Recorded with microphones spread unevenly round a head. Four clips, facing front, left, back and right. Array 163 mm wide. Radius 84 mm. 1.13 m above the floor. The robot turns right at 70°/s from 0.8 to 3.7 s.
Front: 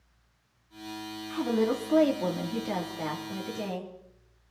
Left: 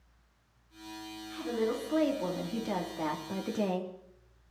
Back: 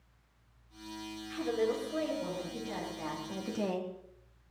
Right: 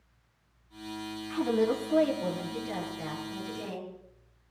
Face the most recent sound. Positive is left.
turn(degrees=120)